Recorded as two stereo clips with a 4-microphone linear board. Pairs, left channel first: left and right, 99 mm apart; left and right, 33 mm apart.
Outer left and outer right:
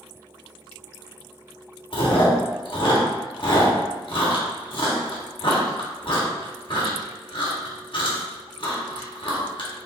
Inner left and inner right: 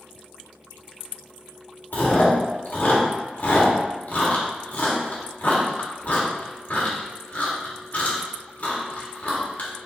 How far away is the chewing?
About 1.1 m.